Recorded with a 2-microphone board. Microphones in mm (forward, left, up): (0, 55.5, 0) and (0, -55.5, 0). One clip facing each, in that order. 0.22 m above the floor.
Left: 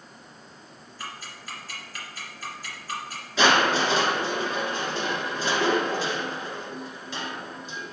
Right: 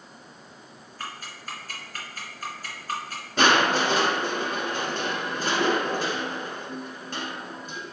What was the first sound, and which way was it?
Ticking, 45° right (ahead or behind).